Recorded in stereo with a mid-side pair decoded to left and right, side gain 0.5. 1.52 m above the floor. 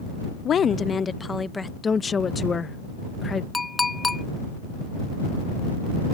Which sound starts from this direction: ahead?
A clink, at 3.5 s.